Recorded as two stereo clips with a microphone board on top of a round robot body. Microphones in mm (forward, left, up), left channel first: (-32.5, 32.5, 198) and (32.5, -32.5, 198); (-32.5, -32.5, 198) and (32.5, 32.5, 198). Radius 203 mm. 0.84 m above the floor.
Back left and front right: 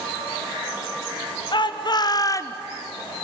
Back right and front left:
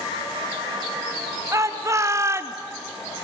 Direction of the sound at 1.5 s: 100° left.